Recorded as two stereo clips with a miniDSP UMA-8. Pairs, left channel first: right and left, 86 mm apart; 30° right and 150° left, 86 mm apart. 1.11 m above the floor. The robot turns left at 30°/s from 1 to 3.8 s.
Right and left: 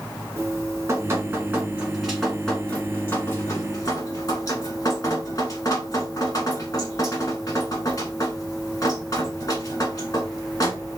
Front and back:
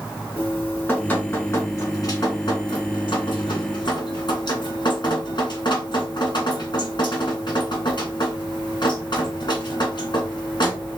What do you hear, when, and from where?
0.4 s dripping: 40° left, 1.6 m; by 11.0 s 45° right, 1.6 m